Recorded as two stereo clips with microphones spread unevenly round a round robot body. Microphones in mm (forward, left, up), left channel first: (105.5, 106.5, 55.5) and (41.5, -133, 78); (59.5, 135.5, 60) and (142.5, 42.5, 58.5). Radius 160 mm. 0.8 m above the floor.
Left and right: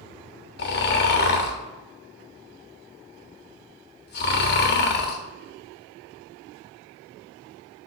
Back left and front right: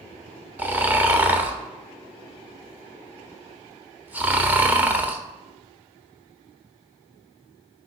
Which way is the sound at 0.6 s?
30° left.